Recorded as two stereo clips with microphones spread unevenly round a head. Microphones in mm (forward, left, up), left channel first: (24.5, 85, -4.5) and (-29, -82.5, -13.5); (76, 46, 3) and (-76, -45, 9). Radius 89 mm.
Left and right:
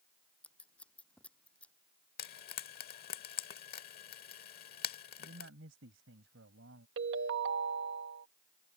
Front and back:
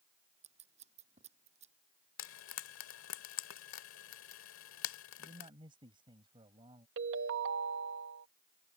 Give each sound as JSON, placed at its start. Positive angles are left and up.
{"t": 0.4, "sound": "scissors", "azimuth_deg": 155}
{"t": 2.2, "sound": "frying", "azimuth_deg": 35}
{"t": 5.2, "sound": "a man speaking", "azimuth_deg": -85}
{"t": 7.0, "sound": "a ringtone", "azimuth_deg": -130}